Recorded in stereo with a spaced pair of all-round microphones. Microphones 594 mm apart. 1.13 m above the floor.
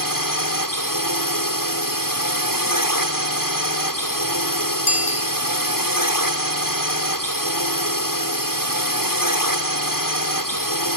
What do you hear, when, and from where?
0.0 s a drone: 35° left (ahead or behind)
4.9 s a bicycle bell: 55° left (ahead or behind)